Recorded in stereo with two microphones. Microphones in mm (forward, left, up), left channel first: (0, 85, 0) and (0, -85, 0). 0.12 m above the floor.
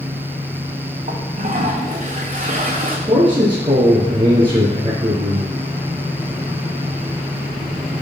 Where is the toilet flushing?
45° right (ahead or behind), 1.8 m.